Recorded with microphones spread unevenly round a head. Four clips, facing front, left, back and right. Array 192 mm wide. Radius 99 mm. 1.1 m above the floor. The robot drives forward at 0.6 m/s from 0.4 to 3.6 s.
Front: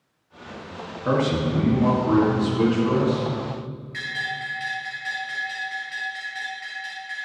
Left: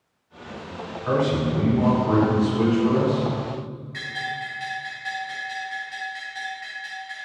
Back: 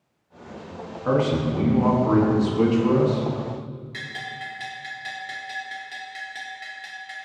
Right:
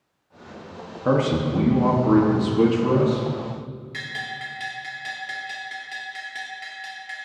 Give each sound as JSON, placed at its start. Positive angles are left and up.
{"t": 1.1, "sound": "a man speaking", "azimuth_deg": -75, "distance_m": 2.0}
{"t": 3.9, "sound": "a bell", "azimuth_deg": -135, "distance_m": 2.5}